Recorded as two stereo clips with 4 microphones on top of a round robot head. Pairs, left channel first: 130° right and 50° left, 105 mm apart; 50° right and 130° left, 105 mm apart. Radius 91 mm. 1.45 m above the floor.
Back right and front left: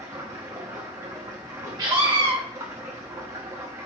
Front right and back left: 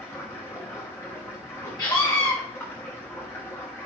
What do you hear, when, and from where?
0.0 s running water: straight ahead, 0.9 m
1.8 s a scream: 5° left, 1.2 m